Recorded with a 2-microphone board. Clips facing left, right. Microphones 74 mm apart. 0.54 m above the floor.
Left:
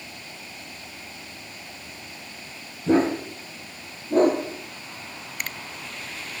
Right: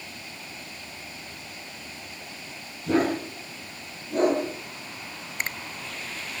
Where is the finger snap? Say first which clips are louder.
Right 2 dB; 25° right (ahead or behind), 0.8 m.